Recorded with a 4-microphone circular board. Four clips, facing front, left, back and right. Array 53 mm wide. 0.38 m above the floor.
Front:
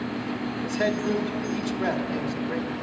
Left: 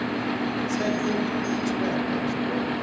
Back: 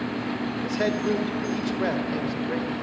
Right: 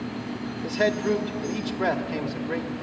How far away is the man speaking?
About 1.1 m.